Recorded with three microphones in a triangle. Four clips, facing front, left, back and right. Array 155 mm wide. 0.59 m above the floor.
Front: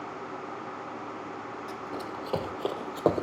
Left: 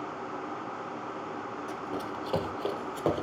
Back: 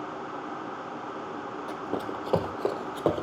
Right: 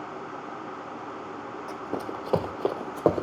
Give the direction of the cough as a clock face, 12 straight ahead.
No cough in this recording.